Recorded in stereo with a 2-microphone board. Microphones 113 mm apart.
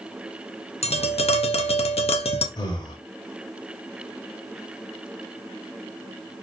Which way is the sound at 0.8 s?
65° left (ahead or behind).